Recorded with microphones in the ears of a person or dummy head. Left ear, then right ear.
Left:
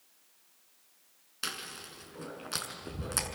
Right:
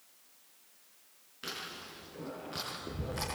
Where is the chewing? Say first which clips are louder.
Left 3 dB; 75° left (ahead or behind), 5 m.